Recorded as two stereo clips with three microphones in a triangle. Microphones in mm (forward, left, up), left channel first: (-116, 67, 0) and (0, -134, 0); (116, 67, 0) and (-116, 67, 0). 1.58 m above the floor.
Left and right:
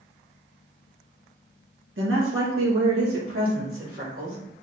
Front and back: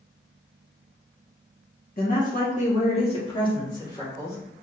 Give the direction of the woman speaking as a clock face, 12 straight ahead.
1 o'clock.